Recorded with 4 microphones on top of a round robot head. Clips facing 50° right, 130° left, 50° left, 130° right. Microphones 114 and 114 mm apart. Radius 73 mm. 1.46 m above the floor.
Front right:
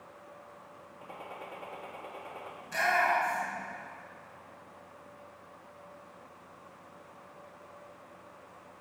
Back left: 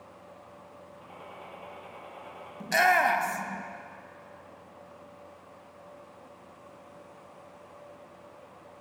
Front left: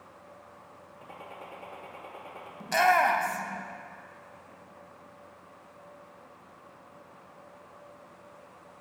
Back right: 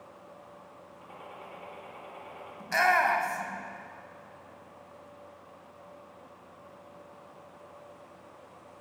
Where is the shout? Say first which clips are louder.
Back left 6 dB, front left 2 dB; 125° left, 1.2 m.